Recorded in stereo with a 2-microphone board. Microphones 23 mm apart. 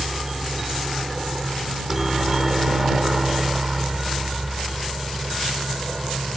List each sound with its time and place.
0.0 s a helicopter: 15° right (ahead or behind); by 6.4 s 10° right (ahead or behind)